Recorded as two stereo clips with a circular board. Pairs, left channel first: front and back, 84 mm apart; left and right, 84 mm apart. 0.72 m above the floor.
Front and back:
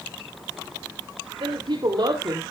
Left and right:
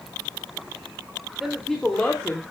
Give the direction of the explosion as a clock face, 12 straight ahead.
No explosion in this recording.